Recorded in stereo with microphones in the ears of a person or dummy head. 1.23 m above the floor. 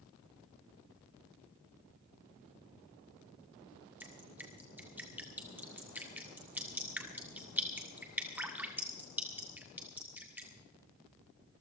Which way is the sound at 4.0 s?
5° right (ahead or behind).